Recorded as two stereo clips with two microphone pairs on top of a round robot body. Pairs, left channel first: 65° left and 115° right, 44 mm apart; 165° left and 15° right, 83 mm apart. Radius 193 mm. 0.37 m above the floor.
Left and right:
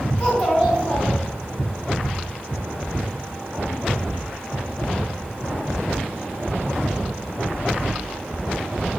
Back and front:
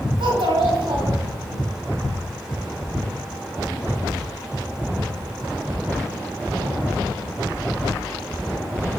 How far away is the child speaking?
About 3 m.